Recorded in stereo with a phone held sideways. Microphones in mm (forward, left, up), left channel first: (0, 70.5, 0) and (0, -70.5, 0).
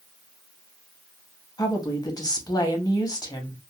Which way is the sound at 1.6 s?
25° left (ahead or behind).